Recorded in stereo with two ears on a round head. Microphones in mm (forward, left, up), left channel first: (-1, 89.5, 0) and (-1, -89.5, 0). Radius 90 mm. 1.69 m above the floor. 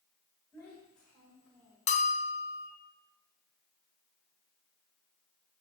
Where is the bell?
35° left (ahead or behind), 0.9 m.